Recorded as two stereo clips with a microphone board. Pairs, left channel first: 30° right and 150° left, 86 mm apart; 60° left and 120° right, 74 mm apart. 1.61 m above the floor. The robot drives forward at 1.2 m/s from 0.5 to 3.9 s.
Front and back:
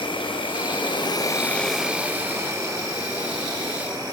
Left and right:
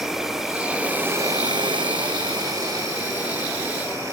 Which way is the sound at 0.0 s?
35° right.